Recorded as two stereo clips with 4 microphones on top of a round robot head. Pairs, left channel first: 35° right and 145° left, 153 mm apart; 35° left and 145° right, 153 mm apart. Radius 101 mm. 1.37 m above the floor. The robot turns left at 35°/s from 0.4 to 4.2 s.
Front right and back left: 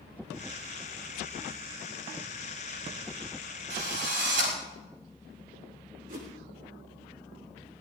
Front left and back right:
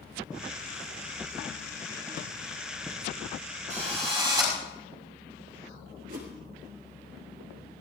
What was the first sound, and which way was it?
A drill, 170° left.